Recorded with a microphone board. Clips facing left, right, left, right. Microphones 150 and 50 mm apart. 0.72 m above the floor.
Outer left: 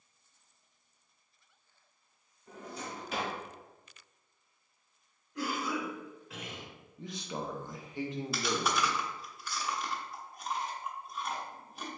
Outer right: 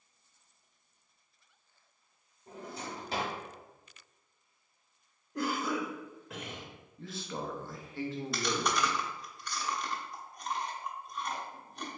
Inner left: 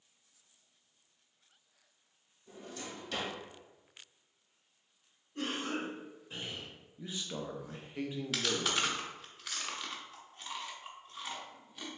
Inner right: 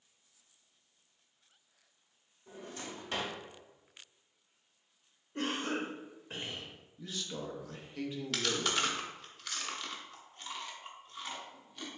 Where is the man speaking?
15° left (ahead or behind), 0.6 m.